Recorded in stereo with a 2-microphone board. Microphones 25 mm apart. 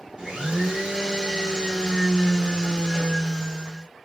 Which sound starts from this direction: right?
A blender, at 0.2 s.